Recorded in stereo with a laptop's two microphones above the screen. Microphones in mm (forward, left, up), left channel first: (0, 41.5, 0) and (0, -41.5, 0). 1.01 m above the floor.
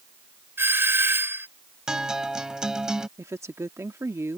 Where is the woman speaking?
35° right (ahead or behind).